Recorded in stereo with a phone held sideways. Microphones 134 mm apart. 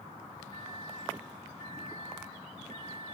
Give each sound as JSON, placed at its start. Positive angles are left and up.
{"t": 0.5, "sound": "a microwave", "side_deg": 40, "distance_m": 3.5}